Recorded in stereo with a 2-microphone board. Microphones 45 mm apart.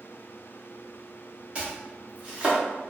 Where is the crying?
I don't hear crying.